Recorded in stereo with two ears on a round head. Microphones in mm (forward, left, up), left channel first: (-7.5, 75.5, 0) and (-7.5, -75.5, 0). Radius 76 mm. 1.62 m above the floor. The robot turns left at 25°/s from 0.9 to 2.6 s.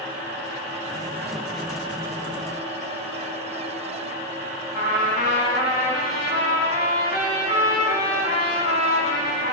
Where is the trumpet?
60° left (ahead or behind), 3 m.